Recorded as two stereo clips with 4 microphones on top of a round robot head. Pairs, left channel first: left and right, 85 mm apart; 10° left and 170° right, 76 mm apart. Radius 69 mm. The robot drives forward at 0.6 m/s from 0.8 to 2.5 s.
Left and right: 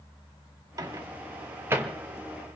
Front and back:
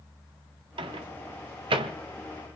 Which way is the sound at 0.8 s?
145° right.